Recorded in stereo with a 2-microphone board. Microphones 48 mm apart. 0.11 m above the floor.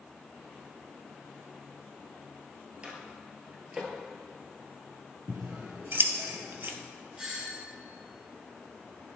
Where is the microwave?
25° right (ahead or behind), 2.0 m.